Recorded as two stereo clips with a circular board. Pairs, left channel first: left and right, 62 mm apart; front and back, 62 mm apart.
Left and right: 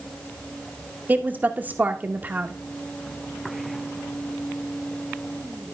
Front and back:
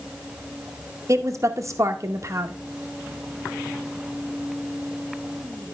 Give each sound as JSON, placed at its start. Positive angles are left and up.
{"t": 1.1, "sound": "a woman speaking", "azimuth_deg": -150, "distance_m": 0.7}